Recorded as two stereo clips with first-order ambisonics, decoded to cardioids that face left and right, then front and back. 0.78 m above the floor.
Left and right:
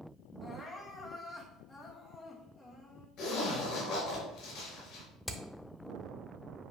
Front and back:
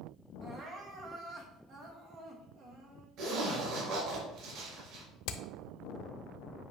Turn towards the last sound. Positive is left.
turn(degrees=5)